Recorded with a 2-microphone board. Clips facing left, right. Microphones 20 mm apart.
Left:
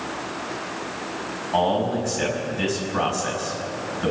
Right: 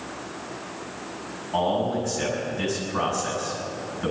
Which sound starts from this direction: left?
A man speaking, at 1.5 s.